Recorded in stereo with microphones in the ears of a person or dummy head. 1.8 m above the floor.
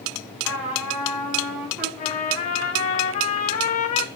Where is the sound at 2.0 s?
45° left (ahead or behind), 1.8 m.